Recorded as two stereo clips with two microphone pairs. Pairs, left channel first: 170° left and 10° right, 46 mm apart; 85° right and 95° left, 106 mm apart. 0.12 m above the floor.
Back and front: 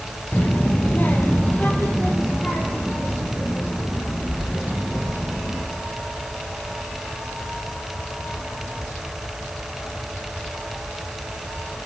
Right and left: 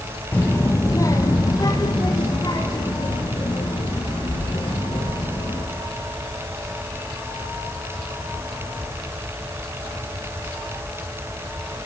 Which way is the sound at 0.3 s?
155° right.